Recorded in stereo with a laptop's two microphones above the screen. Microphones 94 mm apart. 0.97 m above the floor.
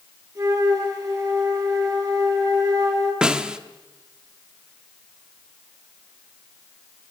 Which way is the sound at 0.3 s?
35° right (ahead or behind).